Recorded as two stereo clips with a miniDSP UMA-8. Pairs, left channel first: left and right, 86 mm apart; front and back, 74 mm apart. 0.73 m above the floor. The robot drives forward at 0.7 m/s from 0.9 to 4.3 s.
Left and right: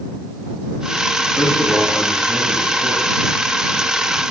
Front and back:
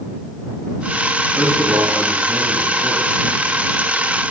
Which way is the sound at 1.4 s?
155° left.